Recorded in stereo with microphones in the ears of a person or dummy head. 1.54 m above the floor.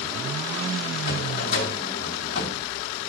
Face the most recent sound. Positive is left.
turn(degrees=50)  # may be behind; listen again after turning